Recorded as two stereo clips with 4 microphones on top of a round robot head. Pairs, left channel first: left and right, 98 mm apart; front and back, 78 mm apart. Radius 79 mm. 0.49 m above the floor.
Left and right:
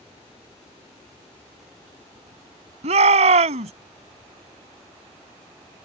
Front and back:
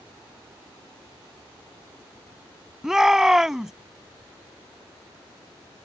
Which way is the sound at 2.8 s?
95° right.